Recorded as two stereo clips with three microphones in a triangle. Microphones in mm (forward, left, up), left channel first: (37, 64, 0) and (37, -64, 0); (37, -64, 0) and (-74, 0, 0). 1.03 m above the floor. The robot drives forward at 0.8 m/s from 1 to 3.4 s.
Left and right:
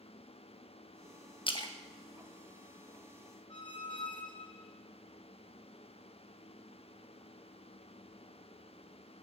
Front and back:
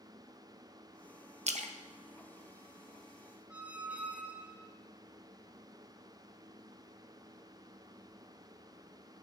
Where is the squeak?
75° left, 1.0 m.